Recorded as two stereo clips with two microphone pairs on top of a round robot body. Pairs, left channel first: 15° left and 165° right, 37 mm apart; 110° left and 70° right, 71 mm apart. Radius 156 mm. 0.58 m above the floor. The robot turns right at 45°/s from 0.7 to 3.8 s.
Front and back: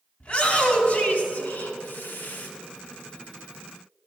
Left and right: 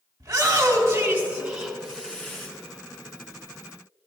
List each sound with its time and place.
0.2 s a shout: 25° right, 3 m; by 2.5 s 55° left, 3 m